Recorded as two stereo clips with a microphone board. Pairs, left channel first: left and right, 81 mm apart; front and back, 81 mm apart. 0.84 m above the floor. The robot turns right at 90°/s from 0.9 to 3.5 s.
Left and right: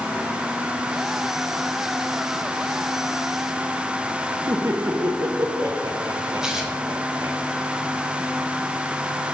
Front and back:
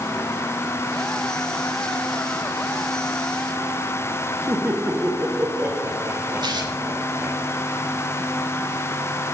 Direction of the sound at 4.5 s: 120° right.